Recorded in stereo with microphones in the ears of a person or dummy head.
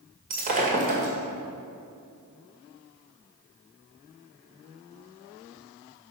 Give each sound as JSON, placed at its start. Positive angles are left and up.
{"t": 0.3, "sound": "breaking glass", "side_deg": -45, "distance_m": 2.0}